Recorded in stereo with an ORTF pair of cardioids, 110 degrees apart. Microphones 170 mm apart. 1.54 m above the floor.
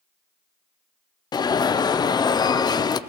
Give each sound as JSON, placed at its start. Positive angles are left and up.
{"t": 1.3, "sound": "an alarm", "azimuth_deg": 25, "distance_m": 0.5}